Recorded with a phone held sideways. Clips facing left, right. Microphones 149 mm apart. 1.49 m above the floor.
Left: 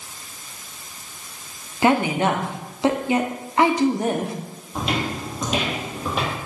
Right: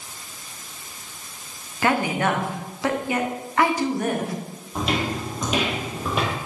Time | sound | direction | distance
1.8 | a woman speaking | 25° left (ahead or behind) | 0.7 m
4.8 | footsteps | centre (ahead or behind) | 1.5 m